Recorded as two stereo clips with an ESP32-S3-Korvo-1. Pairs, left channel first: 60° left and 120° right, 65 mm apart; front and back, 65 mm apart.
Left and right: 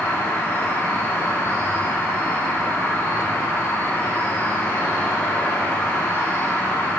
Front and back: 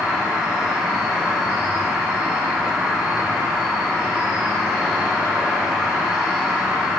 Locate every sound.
0.0 s an insect: 95° left, 0.8 m